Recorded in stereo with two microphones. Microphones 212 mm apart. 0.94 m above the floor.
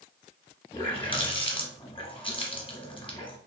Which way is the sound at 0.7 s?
25° left (ahead or behind).